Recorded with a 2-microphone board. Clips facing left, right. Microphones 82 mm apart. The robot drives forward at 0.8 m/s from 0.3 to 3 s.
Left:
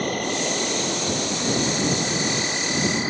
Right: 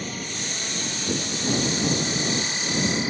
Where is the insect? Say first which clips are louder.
Left 9 dB; 60° left (ahead or behind); by 3.1 s 30° left (ahead or behind).